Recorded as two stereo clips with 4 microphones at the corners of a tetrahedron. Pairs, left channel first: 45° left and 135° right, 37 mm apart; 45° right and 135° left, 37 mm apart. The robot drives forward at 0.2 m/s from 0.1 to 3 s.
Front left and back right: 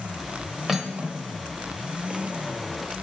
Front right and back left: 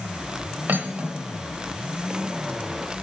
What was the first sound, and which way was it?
Cutlery clinking, 145° left.